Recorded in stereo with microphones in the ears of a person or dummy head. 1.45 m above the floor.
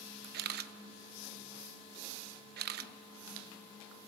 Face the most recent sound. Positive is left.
turn(degrees=-60)  # may be behind; listen again after turning